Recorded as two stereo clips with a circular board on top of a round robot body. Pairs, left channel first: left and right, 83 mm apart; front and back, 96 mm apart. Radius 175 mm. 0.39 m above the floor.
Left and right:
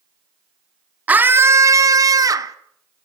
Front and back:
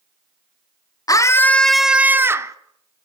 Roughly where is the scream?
Ahead right.